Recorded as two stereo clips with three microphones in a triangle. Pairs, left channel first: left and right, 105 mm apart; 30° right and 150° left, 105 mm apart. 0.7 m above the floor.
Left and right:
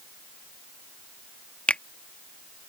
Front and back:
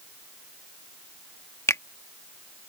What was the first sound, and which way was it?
A finger snap, 15° left.